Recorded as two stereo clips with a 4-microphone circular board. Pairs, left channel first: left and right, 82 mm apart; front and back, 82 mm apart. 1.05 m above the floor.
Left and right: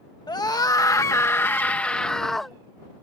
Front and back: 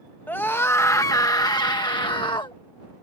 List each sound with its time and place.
0.3 s a scream: 65° left; by 2.5 s straight ahead